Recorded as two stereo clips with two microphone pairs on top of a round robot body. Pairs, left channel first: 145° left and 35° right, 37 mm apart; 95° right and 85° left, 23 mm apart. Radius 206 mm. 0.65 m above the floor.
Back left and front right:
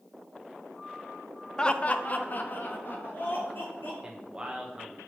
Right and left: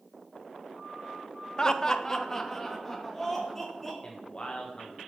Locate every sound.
1.6 s laughter: 160° right, 0.6 m; by 3.9 s 175° right, 2.5 m
4.0 s a man speaking: 95° right, 1.2 m